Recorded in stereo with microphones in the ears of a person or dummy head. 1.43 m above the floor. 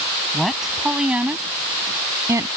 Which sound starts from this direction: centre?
A woman speaking, at 0.3 s.